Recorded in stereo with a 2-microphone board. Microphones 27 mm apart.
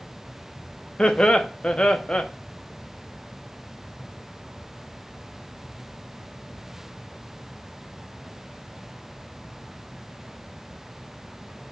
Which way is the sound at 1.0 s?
40° left (ahead or behind).